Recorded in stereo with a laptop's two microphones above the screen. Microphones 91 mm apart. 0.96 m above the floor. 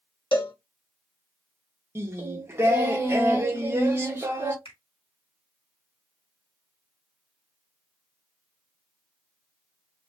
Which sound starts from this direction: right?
Singing, at 1.9 s.